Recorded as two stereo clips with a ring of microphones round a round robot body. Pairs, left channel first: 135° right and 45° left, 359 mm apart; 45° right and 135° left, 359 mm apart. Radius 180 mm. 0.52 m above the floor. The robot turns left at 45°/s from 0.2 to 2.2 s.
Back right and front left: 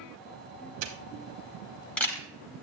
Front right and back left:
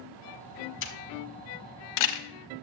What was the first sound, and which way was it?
A camera shutter, 5° left.